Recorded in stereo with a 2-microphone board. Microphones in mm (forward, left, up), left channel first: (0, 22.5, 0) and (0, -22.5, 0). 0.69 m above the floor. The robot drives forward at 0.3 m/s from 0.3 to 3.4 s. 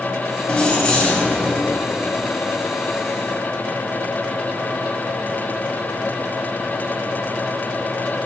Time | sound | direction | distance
0.5 | keys jangling | 15° left (ahead or behind) | 2.5 m